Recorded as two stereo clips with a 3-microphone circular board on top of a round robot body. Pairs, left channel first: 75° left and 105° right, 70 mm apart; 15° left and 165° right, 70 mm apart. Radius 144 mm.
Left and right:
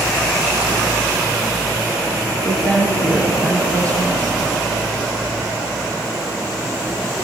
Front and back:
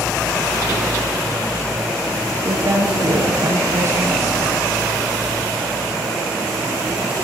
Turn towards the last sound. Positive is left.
turn(degrees=145)